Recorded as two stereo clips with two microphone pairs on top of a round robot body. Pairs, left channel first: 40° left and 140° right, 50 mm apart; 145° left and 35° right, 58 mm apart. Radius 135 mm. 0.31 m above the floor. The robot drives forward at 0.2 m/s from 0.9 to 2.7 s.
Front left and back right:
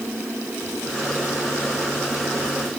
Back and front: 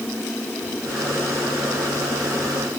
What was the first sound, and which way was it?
Only background noise.